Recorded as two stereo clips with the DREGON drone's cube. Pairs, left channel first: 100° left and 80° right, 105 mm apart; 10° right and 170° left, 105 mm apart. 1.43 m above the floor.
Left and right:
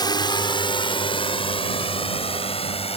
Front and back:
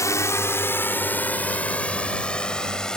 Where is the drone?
50° left; by 3.0 s 75° left.